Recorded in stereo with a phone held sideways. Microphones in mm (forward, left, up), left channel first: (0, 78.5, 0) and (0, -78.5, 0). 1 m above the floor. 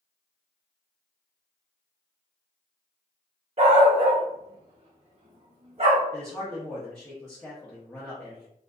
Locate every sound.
3.6 s a dog barking: 45° right (ahead or behind), 0.9 m
6.1 s a man speaking: 5° left (ahead or behind), 0.6 m